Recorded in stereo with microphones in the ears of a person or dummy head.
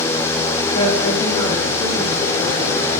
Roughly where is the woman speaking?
Left.